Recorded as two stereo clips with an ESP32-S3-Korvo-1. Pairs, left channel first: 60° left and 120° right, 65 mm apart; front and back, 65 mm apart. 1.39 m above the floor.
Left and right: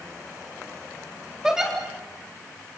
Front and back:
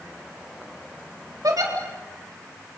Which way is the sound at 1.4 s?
160° left.